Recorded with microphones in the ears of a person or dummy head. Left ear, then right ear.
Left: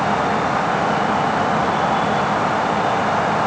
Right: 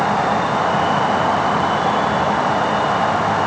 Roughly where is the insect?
Right.